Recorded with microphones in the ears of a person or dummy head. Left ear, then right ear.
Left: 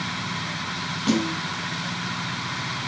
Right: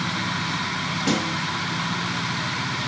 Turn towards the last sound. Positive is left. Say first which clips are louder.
# left 1 dB
turn(degrees=-5)  # may be behind; listen again after turning